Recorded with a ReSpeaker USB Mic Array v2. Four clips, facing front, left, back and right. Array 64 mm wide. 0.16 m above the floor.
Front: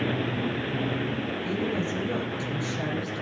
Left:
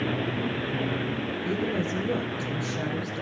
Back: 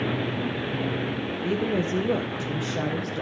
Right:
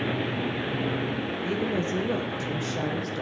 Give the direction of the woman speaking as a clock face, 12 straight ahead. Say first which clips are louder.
Even, back 5 dB; 5 o'clock.